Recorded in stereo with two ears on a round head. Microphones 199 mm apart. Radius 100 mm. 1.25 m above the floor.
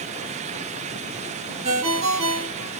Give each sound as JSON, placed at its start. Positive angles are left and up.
{"t": 1.6, "sound": "a ringtone", "side_deg": -30, "distance_m": 1.9}